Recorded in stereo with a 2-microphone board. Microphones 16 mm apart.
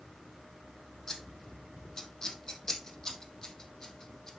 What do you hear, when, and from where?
1.1 s scissors: 35° left (ahead or behind), 3 m